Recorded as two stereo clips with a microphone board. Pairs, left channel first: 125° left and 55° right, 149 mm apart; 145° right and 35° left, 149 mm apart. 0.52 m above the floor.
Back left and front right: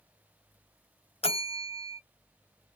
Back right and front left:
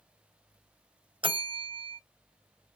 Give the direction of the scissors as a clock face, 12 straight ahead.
I don't hear scissors.